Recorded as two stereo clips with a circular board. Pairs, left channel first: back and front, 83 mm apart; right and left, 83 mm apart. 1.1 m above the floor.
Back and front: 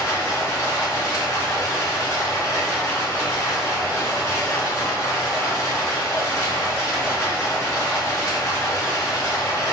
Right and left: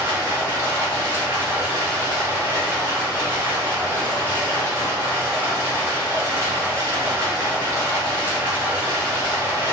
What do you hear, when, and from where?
0.0 s running water: 140° left, 1.1 m